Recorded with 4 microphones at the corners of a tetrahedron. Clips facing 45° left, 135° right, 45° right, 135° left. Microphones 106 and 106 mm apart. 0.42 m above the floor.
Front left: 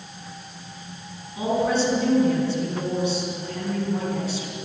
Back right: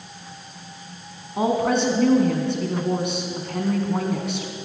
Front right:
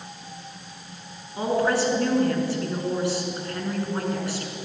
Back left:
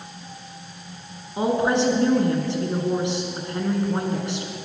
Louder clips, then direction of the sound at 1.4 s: Back right 2 dB, back left 2 dB; 155° right.